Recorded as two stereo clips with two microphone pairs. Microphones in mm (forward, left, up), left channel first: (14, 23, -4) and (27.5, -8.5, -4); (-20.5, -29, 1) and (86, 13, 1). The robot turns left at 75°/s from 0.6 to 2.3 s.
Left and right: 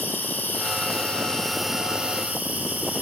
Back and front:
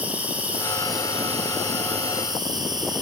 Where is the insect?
100° left, 1.4 m; by 3.0 s 30° right, 1.4 m.